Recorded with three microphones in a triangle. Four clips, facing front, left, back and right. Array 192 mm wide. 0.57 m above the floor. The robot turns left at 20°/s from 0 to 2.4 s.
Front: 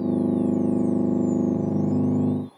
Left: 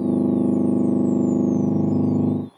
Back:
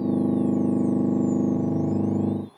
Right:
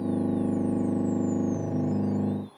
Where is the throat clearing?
I don't hear throat clearing.